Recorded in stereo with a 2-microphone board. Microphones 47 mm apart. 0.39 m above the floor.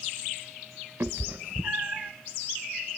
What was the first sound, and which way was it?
A cat meowing, 50° right (ahead or behind).